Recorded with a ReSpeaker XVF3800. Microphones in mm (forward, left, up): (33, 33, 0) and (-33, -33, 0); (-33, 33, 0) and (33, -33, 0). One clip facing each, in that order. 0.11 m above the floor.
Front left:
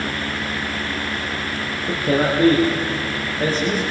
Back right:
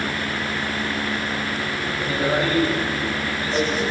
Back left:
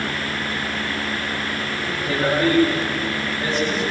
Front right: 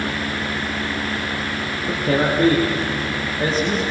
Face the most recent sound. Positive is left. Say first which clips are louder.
# front left 5 dB, front right 3 dB
turn(degrees=5)